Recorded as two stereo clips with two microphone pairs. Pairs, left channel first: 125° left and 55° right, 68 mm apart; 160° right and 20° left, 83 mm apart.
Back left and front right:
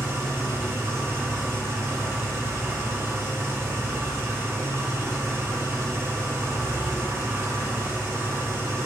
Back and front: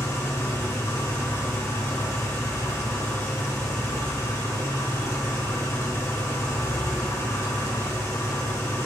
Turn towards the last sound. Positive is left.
turn(degrees=-110)